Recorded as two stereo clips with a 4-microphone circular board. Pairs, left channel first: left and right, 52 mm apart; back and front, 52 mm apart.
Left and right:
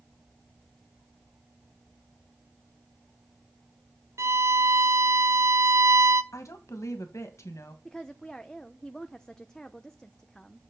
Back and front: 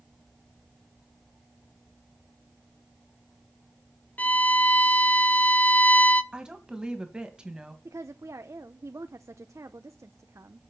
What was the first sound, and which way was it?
A violin, 120° right.